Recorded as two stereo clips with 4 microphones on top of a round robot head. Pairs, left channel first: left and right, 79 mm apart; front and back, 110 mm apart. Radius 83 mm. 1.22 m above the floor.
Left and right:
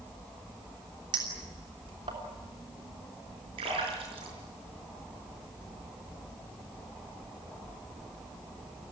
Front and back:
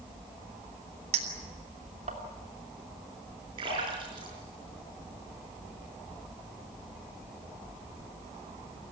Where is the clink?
140° right, 3 m.